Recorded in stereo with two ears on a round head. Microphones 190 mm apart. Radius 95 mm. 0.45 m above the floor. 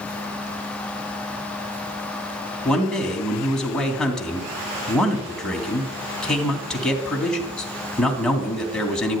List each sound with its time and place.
2.6 s a man speaking: 5° left (ahead or behind), 3 m